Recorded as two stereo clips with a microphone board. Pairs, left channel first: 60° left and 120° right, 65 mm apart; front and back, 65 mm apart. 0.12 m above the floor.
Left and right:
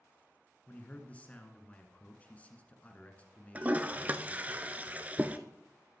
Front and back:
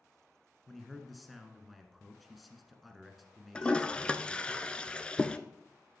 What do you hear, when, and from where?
0.7 s a man speaking: 90° left, 1.2 m
3.5 s a toilet flushing: 65° right, 0.5 m